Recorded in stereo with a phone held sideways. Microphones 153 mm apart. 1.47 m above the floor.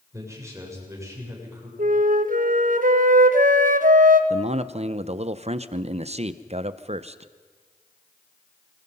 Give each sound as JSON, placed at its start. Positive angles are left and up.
{"t": 0.1, "sound": "a man speaking", "side_deg": -20, "distance_m": 6.5}
{"t": 1.8, "sound": "a flute", "side_deg": -60, "distance_m": 1.1}
{"t": 4.3, "sound": "a man speaking", "side_deg": -45, "distance_m": 0.8}